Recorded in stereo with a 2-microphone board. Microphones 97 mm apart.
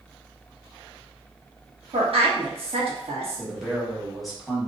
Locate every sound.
1.9 s a woman speaking: 70° right (ahead or behind), 1.2 m
3.4 s a man speaking: centre (ahead or behind), 1.3 m